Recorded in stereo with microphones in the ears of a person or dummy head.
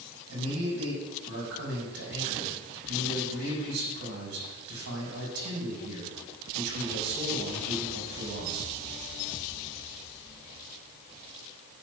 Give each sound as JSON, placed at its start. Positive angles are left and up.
{"t": 0.3, "sound": "a man speaking", "side_deg": -80, "distance_m": 6.0}